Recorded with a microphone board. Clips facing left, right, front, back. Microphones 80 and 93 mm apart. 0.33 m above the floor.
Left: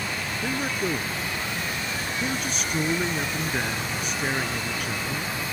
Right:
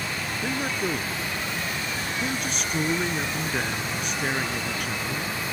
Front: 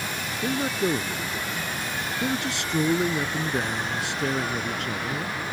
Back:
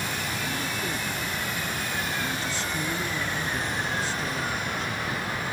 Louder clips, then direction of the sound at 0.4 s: Even, front 6 dB; straight ahead.